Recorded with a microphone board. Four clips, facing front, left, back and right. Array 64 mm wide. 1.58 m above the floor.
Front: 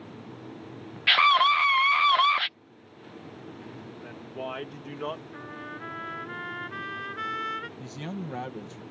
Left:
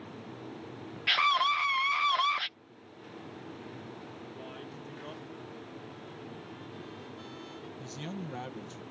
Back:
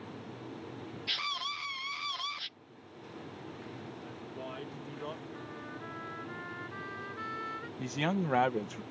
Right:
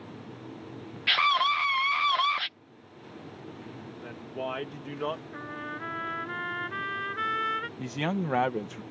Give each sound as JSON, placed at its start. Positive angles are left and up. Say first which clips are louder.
{"t": 1.1, "sound": "a scream", "louder": "right 2 dB, front 19 dB", "azimuth_deg": -5}
{"t": 4.0, "sound": "a woman speaking", "louder": "right 7 dB, front 5 dB", "azimuth_deg": -55}
{"t": 5.3, "sound": "a trumpet", "louder": "right 8 dB, front 4 dB", "azimuth_deg": -65}
{"t": 7.8, "sound": "a man speaking", "louder": "right 10 dB, back 4 dB", "azimuth_deg": -125}